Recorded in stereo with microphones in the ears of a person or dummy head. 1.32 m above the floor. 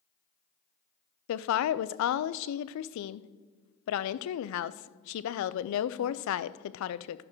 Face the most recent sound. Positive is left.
turn(degrees=80)